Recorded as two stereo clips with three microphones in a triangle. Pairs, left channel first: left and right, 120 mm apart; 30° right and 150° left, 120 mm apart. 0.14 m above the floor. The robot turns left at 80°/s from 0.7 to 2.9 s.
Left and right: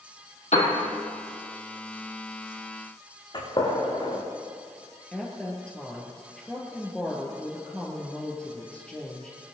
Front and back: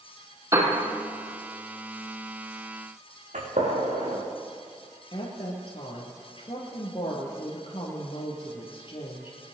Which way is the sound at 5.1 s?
10° left.